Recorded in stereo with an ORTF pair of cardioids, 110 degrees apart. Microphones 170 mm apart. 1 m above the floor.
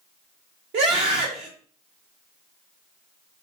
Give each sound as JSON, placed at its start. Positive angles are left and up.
{"t": 0.7, "sound": "a scream", "azimuth_deg": -70, "distance_m": 1.1}